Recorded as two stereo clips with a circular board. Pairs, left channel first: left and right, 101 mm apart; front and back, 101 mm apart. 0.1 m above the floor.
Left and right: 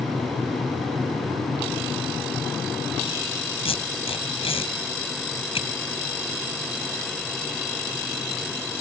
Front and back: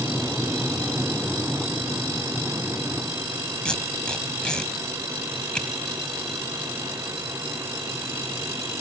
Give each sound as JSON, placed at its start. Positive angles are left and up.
{"t": 3.6, "sound": "tape being pulled", "azimuth_deg": 80, "distance_m": 2.0}